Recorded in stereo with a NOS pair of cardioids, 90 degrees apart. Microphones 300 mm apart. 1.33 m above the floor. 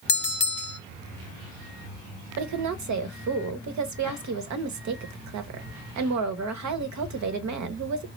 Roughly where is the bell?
Ahead left.